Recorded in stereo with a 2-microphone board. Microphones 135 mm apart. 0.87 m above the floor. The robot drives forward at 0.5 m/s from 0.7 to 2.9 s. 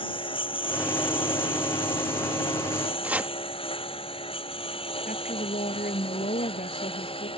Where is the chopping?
10° right (ahead or behind).